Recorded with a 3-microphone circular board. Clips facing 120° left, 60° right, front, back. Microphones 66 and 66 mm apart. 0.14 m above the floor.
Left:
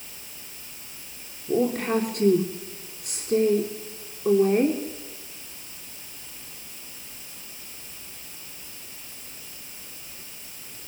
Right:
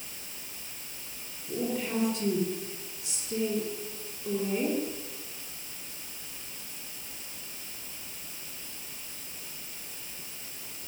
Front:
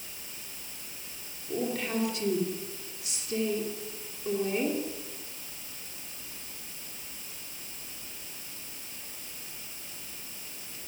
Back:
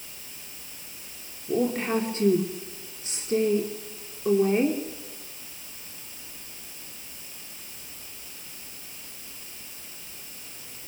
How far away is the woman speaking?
About 3 m.